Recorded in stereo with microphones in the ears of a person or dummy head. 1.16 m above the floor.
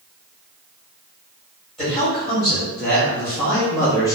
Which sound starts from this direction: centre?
A man speaking, at 1.8 s.